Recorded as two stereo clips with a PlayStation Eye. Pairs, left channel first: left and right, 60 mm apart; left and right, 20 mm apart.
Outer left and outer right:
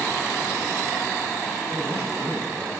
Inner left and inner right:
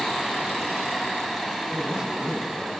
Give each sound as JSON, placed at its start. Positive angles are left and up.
{"t": 1.7, "sound": "a man speaking", "side_deg": -65, "distance_m": 4.5}